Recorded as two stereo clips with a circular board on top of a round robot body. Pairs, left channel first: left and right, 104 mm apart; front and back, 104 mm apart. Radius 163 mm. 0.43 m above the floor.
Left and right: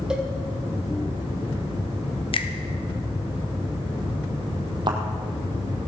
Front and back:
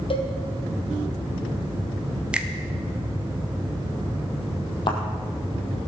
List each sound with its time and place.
0.1 s a cowbell: 10° right, 2 m
2.3 s a finger snap: 100° left, 1.3 m
4.9 s a thud: 40° right, 1.7 m